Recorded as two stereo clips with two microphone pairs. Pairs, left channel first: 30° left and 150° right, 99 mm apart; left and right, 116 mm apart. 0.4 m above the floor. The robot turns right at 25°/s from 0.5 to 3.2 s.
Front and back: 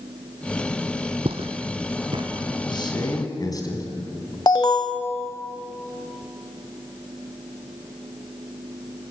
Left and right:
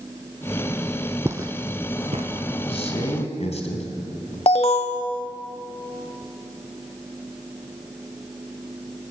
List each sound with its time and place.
1.2 s footsteps: 155° right, 0.9 m; by 2.5 s 105° right, 1.8 m
2.7 s a man speaking: 65° left, 3 m; by 4.4 s 80° left, 3 m
4.5 s an alarm: 70° left, 1.2 m